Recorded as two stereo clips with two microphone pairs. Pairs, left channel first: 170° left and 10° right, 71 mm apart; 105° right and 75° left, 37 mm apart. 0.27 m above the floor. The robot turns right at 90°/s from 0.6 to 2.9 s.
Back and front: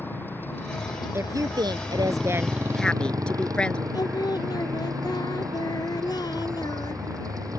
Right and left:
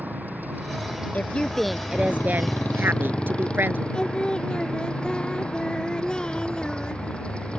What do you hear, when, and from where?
0.0 s a motorcycle: 105° left; by 7.6 s 45° right
1.1 s a woman speaking: 65° right; by 3.8 s 90° left
3.9 s singing: 170° right